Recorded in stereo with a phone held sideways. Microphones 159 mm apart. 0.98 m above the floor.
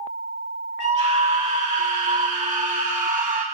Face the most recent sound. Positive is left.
turn(degrees=-60)  # may be behind; listen again after turning